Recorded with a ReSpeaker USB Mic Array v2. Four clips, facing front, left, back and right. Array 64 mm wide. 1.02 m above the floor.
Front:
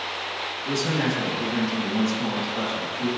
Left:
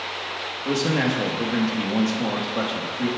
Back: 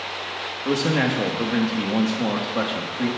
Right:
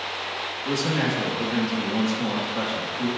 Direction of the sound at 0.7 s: 160° left.